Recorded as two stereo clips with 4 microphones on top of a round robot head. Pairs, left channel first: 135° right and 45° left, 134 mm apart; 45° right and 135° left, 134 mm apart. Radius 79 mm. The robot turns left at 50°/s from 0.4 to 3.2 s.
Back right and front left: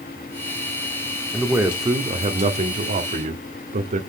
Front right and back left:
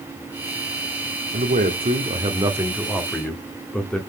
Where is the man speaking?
130° left, 1.5 m; by 4.0 s 35° left, 1.5 m.